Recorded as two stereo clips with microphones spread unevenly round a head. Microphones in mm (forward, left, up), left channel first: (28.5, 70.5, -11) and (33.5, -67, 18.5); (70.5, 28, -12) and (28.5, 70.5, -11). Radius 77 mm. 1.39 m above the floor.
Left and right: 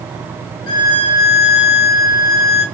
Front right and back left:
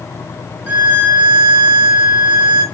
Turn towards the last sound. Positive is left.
turn(degrees=140)